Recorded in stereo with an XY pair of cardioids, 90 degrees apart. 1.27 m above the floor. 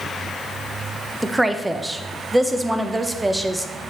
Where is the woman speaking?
15° right, 0.8 m.